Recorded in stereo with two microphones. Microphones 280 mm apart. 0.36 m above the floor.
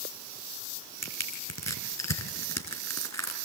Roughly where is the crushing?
Left.